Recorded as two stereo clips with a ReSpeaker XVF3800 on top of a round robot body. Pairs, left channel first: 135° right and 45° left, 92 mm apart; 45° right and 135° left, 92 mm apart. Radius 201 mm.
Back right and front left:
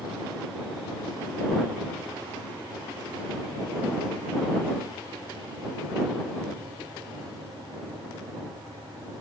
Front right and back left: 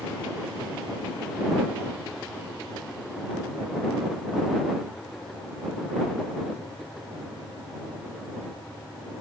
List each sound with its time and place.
Only background noise.